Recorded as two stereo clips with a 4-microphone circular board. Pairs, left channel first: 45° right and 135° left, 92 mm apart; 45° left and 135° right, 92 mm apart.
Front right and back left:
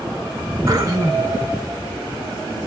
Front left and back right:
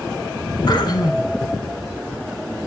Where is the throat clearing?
85° left, 0.7 m.